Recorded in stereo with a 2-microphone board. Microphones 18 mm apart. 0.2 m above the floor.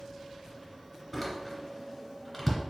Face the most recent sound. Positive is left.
turn(degrees=0)  # may be behind; listen again after turning